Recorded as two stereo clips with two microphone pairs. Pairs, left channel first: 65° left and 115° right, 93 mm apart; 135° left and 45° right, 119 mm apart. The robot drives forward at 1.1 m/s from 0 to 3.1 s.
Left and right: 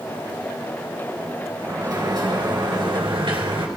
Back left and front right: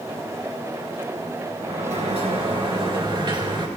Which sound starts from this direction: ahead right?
A sliding door, at 1.6 s.